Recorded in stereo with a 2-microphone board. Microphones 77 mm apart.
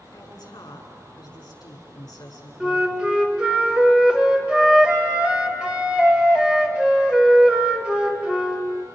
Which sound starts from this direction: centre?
A flute, at 2.6 s.